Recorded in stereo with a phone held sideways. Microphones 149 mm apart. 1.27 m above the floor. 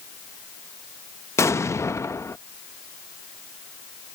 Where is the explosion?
20° left (ahead or behind).